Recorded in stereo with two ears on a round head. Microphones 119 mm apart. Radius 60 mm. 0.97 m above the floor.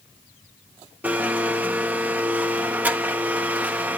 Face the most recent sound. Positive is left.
turn(degrees=-15)  # may be behind; listen again after turning